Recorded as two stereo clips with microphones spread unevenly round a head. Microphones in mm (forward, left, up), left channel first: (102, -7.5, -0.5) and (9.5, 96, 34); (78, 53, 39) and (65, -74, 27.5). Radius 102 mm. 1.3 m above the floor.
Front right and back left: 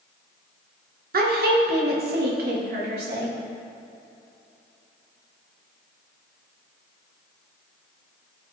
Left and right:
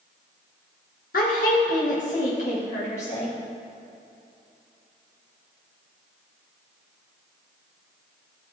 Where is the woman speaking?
115° left, 1.3 m; by 3.4 s 140° left, 2.5 m.